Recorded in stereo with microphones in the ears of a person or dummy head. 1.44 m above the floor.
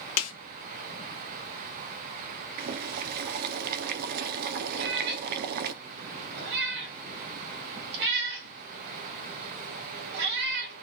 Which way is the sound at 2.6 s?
50° right (ahead or behind).